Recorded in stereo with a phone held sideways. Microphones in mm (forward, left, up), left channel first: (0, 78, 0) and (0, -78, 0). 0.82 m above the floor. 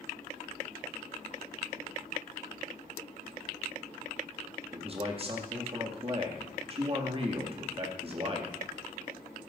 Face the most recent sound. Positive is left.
turn(degrees=-40)  # may be behind; listen again after turning